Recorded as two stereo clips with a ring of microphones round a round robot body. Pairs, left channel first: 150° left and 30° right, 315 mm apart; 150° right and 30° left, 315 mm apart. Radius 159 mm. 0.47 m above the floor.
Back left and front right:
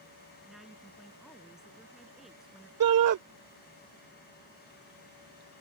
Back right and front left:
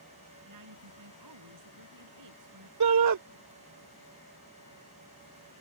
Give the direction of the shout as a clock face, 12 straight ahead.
12 o'clock.